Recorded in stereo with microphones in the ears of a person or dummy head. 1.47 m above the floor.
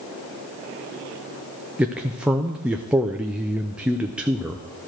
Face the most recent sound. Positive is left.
turn(degrees=-5)  # may be behind; listen again after turning